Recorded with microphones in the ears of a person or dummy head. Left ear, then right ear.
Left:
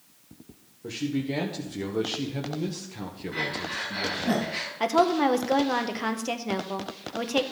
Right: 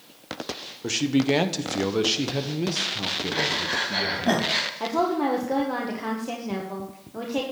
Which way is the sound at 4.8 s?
50° left (ahead or behind).